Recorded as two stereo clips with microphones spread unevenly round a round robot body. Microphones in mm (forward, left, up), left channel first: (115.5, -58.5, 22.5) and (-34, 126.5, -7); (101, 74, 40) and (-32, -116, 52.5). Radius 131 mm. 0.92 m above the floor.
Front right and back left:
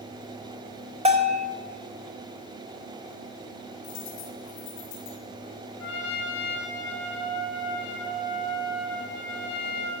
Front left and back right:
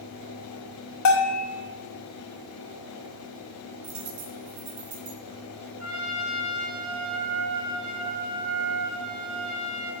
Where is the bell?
65° left, 1.7 m.